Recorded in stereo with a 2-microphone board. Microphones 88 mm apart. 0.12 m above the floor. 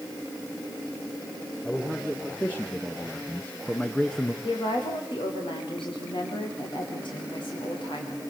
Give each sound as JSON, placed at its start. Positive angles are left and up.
{"t": 1.6, "sound": "a man speaking", "side_deg": 15, "distance_m": 3.0}
{"t": 4.4, "sound": "a woman speaking", "side_deg": 75, "distance_m": 7.5}